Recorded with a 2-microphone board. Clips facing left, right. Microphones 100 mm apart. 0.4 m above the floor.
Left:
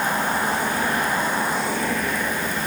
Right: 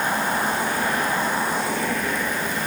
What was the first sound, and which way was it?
Only background noise.